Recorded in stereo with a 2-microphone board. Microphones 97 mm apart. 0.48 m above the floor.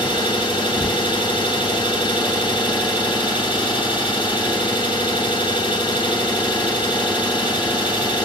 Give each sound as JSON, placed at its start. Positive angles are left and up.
{"t": 0.0, "sound": "an engine running", "side_deg": 50, "distance_m": 1.6}